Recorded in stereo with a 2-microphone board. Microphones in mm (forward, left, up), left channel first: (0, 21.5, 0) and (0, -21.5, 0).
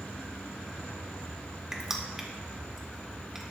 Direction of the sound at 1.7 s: 10° right (ahead or behind).